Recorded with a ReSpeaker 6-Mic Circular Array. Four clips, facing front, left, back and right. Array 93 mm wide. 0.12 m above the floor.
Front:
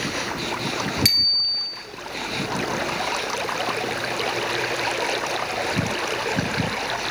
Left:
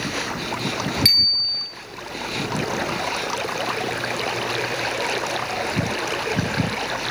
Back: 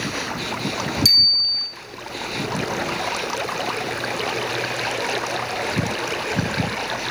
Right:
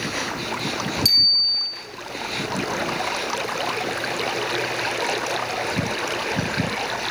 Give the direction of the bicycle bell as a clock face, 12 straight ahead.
11 o'clock.